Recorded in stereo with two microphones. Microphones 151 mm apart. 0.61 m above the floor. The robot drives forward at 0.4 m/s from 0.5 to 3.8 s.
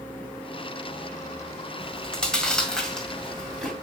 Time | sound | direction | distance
1.8 | chewing | 5° left (ahead or behind) | 1.8 m